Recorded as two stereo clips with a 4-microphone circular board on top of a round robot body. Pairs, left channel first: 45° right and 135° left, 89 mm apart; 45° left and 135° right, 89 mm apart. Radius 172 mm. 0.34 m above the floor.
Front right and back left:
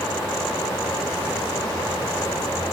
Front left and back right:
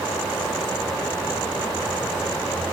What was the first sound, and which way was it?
Only background noise.